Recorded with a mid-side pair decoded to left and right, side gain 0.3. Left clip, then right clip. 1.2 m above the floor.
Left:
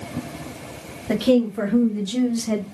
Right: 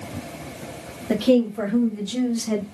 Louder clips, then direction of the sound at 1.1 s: Even; 55° left.